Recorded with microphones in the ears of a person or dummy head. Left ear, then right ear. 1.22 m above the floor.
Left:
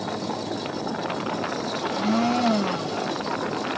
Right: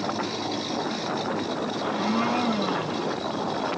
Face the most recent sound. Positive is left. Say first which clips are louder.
# left 2 dB
turn(degrees=35)  # may be behind; listen again after turning